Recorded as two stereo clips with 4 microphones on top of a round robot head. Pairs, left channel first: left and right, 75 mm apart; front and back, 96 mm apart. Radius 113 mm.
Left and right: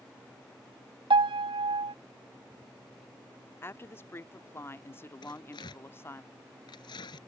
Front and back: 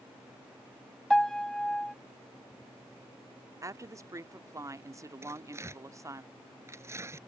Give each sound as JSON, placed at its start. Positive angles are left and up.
{"t": 1.1, "sound": "a piano", "azimuth_deg": -85}
{"t": 3.6, "sound": "a woman speaking", "azimuth_deg": 135}
{"t": 5.2, "sound": "tearing paper", "azimuth_deg": 120}